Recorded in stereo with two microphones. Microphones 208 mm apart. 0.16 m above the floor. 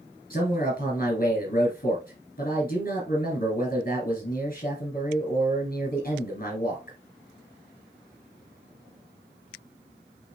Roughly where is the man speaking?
Left.